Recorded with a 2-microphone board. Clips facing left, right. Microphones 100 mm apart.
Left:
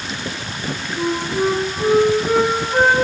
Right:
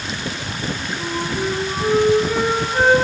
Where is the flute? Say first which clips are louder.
Left 6 dB; 50° left (ahead or behind), 1.0 m.